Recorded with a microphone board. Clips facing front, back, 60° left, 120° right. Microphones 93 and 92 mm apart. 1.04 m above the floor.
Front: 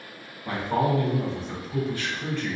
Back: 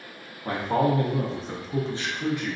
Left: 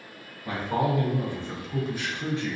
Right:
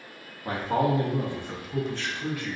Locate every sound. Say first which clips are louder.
0.5 s a man speaking: back 1 dB, right 1 dB; 145° right, 0.9 m; by 2.6 s 105° left, 0.8 m